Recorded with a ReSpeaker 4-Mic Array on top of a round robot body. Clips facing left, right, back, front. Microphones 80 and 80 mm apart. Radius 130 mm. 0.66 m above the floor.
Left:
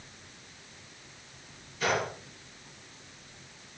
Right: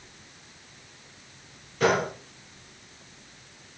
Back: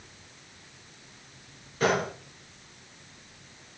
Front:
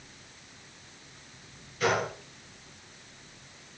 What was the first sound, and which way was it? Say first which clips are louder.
A gunshot: right 6 dB, back 2 dB; 125° right.